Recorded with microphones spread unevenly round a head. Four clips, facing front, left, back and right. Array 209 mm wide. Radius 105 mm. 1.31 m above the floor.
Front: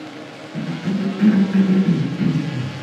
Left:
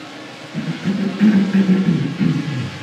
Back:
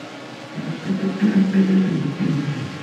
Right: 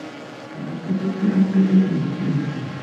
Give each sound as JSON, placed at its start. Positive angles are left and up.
{"t": 0.5, "sound": "a cough", "azimuth_deg": 70, "distance_m": 0.9}